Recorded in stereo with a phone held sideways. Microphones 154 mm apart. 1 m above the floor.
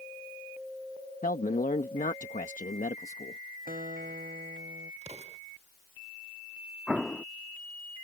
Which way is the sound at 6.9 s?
5° left (ahead or behind).